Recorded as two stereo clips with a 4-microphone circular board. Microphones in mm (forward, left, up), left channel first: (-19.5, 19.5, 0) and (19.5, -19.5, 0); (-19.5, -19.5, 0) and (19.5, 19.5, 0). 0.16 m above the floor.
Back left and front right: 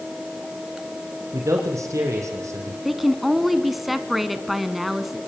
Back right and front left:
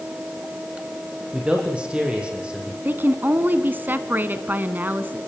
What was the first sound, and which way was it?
A man speaking, 25° right.